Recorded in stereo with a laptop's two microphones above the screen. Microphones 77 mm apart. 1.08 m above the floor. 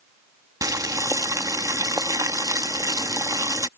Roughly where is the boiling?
Right.